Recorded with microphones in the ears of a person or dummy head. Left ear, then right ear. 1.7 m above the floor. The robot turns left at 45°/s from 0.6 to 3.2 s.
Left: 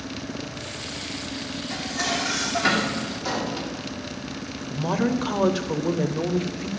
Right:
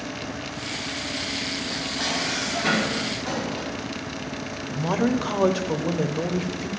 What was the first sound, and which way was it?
Dishes clattering, 135° left.